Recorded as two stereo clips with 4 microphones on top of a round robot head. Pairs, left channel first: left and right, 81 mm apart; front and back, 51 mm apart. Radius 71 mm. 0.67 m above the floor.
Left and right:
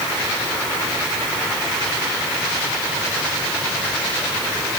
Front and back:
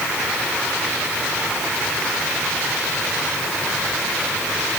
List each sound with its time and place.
Only background noise.